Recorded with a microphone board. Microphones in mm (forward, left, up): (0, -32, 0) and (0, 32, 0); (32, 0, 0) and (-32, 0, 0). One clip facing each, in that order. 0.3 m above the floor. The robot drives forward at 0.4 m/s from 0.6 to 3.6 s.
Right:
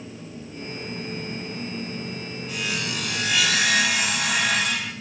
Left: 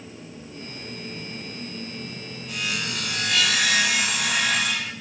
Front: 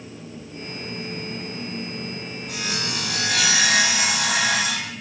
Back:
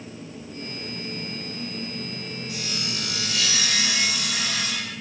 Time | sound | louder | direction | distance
2.5 | sawing | even, front 6 dB | 5° left | 4 m